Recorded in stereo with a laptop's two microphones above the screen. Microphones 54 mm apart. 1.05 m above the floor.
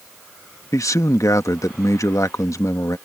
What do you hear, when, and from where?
0.7 s a man speaking: 75° left (ahead or behind)